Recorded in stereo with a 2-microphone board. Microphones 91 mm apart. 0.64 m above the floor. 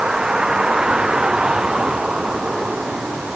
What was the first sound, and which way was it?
A vehicle, 10° right (ahead or behind).